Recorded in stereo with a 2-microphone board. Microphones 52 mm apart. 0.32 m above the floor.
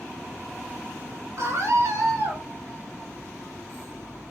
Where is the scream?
60° right (ahead or behind), 4 m; by 2.4 s 75° right (ahead or behind), 4.5 m.